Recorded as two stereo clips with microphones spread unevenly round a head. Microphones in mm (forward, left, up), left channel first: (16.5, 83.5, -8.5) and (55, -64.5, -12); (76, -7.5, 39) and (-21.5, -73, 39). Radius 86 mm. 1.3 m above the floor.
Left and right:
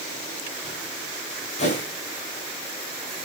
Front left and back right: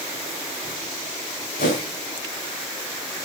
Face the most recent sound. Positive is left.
turn(degrees=60)